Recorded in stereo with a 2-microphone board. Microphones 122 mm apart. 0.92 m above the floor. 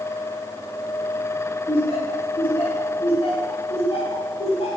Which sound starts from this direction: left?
Laughter, at 1.7 s.